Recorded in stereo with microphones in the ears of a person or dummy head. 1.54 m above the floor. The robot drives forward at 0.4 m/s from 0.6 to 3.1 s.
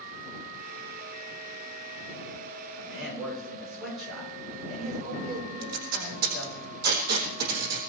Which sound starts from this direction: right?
Tape being pulled, at 5.6 s.